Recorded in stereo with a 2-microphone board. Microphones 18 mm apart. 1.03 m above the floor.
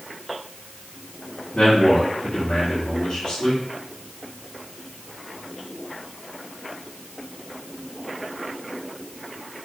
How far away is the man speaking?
About 2.5 m.